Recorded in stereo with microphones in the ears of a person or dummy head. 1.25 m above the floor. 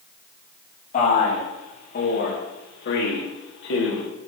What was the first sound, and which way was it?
A man speaking, 45° left (ahead or behind).